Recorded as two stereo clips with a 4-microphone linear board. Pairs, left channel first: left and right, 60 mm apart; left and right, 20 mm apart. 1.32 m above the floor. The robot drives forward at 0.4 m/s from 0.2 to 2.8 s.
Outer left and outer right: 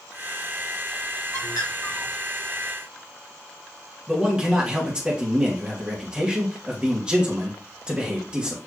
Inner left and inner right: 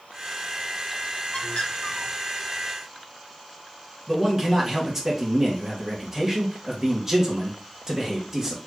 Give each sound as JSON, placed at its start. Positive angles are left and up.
{"t": 1.3, "sound": "a bird", "side_deg": 80, "distance_m": 1.5}
{"t": 4.1, "sound": "a man speaking", "side_deg": -15, "distance_m": 1.7}